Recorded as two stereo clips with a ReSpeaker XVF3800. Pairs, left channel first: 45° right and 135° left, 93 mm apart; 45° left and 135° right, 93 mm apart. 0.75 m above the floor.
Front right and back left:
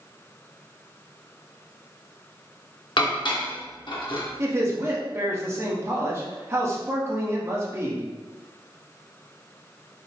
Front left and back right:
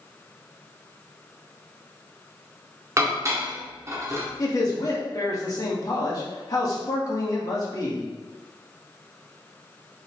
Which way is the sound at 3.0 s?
75° right.